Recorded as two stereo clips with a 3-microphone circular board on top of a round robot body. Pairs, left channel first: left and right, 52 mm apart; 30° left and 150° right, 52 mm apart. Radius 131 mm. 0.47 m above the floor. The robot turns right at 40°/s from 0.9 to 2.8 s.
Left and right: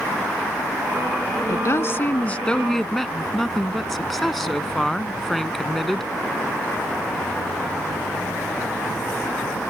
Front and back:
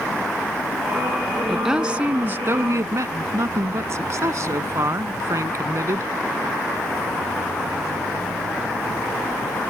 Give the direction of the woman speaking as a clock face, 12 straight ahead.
8 o'clock.